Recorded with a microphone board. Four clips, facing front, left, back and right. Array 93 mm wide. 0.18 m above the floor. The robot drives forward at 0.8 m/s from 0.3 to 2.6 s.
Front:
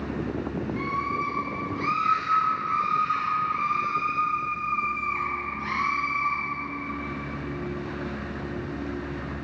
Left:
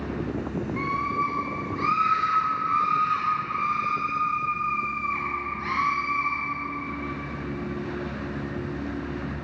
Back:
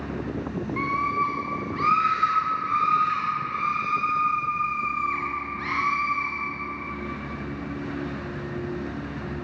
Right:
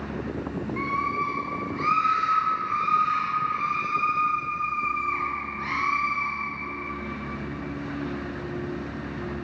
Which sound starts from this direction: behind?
A scream, at 0.8 s.